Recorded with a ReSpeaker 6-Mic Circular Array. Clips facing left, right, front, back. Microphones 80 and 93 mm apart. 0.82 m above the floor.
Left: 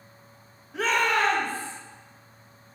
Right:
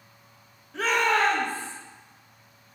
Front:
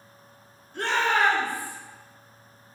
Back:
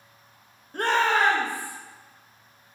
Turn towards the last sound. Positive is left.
turn(degrees=-110)